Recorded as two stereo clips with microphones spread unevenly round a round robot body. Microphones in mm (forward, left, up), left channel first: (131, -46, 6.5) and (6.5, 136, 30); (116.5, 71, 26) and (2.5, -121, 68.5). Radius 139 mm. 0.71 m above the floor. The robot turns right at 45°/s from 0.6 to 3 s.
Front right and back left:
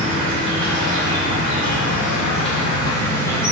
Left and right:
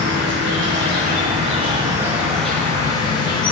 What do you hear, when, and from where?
0.0 s an insect: 95° right, 0.7 m; by 3.5 s 10° left, 0.7 m